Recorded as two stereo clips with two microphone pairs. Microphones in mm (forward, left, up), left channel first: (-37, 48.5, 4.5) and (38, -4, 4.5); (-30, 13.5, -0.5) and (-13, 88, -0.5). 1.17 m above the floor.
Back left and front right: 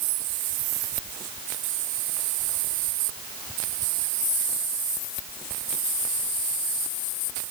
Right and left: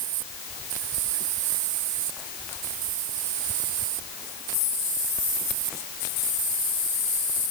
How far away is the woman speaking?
I don't hear a woman speaking.